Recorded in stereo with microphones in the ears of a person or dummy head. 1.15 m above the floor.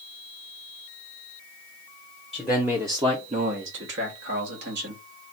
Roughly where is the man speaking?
Centre.